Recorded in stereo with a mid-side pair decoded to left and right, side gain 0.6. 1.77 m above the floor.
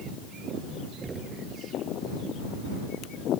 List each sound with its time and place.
1.0 s knocking: 25° right